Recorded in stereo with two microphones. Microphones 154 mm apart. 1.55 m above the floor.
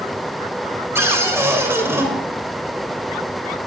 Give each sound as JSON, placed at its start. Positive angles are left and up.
{"t": 0.9, "sound": "a cupboard door", "side_deg": -15, "distance_m": 2.5}